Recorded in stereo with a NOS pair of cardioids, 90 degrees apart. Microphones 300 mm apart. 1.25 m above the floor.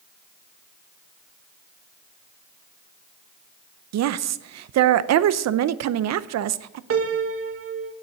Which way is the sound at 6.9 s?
45° right.